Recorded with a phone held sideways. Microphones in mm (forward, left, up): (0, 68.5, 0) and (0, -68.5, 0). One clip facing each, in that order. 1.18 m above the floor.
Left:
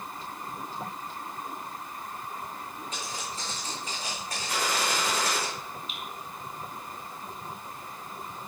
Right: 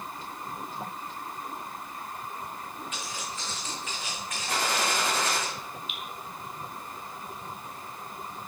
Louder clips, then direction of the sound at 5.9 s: Even; 40° left (ahead or behind).